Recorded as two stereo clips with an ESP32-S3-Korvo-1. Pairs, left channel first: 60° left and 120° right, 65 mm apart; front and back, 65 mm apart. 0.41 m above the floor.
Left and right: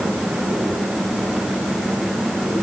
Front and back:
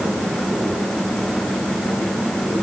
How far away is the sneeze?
I don't hear a sneeze.